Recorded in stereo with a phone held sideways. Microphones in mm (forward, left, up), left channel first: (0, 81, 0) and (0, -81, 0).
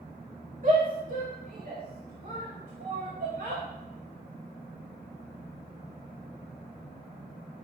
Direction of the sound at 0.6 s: 55° right (ahead or behind).